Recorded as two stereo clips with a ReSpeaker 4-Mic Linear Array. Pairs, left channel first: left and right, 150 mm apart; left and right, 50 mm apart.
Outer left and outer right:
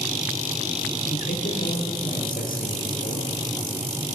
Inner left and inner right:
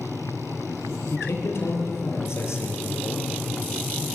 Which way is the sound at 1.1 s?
80° left.